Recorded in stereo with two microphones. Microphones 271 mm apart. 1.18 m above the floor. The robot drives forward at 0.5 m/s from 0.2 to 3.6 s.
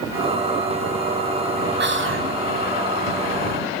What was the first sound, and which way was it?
Whispering, 40° right (ahead or behind).